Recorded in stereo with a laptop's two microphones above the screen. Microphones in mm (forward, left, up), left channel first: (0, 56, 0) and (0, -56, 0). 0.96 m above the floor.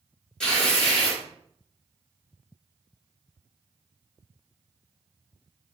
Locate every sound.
0.4 s tearing paper: 5° left (ahead or behind), 1.7 m